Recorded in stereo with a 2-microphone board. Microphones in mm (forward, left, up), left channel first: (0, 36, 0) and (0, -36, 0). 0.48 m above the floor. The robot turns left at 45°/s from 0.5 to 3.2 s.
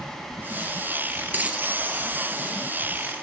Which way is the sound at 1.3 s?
25° right (ahead or behind).